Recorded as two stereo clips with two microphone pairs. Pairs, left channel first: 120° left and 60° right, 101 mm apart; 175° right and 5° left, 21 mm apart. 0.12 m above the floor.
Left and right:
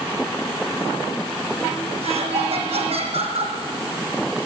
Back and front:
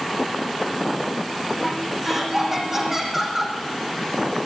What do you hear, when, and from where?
2.0 s laughter: 65° right, 5.5 m